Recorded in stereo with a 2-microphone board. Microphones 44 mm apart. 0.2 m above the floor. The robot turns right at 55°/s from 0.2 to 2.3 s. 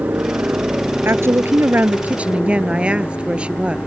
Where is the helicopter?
55° right; by 3.9 s 60° left.